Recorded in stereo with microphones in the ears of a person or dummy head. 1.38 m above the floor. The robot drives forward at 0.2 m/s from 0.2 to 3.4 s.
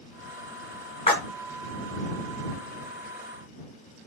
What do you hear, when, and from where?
1.1 s a splash: 25° left (ahead or behind), 1.1 m